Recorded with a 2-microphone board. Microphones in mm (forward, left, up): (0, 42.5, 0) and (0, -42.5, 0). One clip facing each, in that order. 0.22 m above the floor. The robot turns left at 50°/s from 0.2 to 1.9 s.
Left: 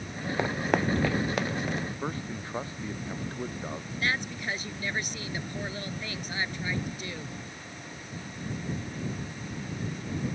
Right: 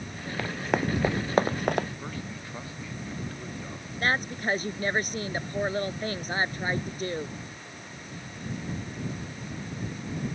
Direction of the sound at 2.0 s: 30° left (ahead or behind).